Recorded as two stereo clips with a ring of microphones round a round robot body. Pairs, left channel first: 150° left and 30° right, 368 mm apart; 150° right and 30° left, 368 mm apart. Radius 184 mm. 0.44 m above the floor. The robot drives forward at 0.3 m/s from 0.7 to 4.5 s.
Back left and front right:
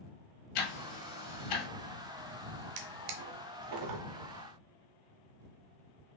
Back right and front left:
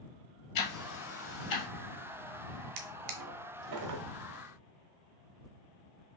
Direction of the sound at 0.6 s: 170° left.